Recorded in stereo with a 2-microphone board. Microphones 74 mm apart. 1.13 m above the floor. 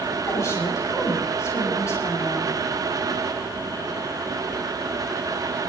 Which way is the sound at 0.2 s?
40° left (ahead or behind).